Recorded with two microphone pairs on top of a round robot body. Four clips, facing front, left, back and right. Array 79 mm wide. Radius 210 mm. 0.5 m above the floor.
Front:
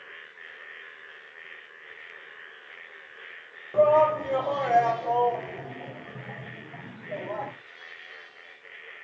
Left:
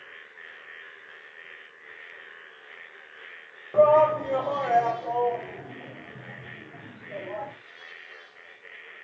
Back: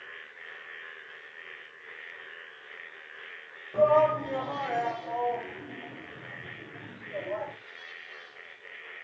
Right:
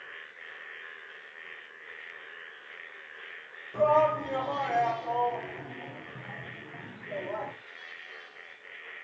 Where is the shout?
70° left, 3 m; by 7.5 s 5° right, 4.5 m.